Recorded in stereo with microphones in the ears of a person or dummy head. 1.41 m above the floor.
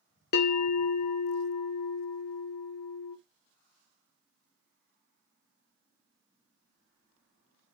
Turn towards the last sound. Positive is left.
turn(degrees=50)  # may be behind; listen again after turning